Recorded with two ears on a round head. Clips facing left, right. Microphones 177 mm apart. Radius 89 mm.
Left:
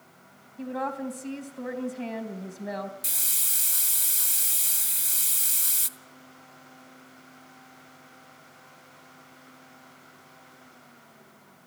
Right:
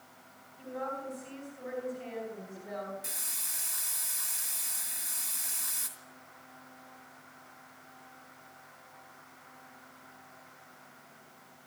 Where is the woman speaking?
65° left (ahead or behind), 4 m.